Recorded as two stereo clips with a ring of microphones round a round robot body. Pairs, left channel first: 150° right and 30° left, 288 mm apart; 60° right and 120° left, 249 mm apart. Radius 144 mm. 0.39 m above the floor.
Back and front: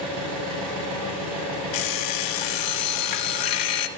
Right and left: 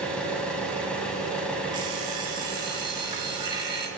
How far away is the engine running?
About 2.5 m.